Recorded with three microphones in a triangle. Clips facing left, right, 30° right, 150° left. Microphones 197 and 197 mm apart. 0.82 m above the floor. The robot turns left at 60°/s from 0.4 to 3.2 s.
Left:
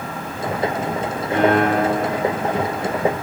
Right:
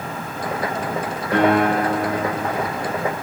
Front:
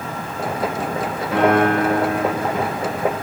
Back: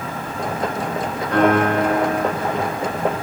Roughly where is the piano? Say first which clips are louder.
Even, even; right.